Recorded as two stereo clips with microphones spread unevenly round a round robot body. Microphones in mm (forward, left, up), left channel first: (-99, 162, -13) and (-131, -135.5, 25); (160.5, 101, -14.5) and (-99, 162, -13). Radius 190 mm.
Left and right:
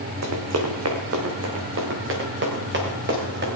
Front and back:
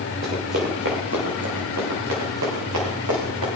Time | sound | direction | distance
0.2 | running footsteps | 120° right | 2.5 m